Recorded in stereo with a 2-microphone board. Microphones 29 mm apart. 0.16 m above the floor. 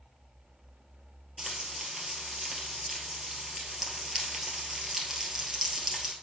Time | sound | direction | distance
1.4 | frying | 10° right (ahead or behind) | 2.0 m